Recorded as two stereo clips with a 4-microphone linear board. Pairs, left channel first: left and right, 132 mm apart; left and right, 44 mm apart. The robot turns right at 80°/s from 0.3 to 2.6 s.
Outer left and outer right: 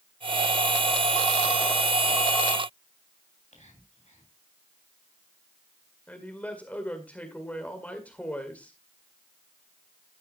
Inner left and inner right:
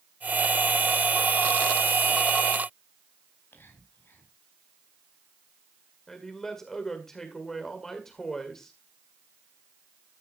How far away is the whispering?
About 4.5 m.